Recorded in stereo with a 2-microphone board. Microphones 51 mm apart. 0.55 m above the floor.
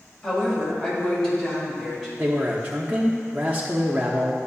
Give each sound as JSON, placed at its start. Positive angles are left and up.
{"t": 0.2, "sound": "a woman speaking", "side_deg": 10, "distance_m": 2.0}
{"t": 2.2, "sound": "a man speaking", "side_deg": -25, "distance_m": 0.7}